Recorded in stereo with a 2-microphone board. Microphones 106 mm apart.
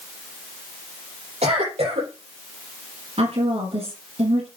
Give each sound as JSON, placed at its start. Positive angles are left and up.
{"t": 1.4, "sound": "a cough", "side_deg": -70, "distance_m": 5.5}
{"t": 3.2, "sound": "a woman speaking", "side_deg": -60, "distance_m": 5.5}